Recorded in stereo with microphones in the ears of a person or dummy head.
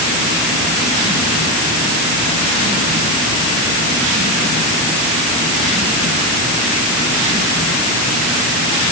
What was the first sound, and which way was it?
Only background noise.